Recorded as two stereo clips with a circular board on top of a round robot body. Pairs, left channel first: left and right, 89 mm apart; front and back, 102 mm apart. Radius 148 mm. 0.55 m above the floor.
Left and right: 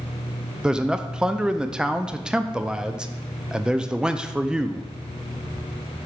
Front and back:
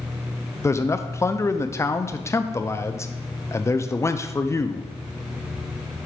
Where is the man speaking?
20° right, 0.7 m.